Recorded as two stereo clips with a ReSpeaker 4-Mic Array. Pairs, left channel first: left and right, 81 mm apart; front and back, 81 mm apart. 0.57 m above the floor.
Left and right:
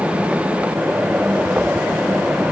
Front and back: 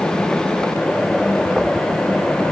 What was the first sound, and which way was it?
Only background noise.